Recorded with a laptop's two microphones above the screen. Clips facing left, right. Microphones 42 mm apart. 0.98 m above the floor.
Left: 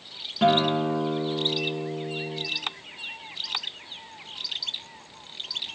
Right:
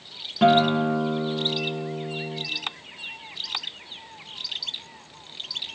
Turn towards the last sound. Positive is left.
turn(degrees=-10)  # may be behind; listen again after turning